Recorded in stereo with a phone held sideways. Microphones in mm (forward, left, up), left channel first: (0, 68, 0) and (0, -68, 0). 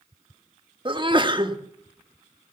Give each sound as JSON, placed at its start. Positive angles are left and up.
{"t": 0.8, "sound": "a sneeze", "side_deg": -35, "distance_m": 1.4}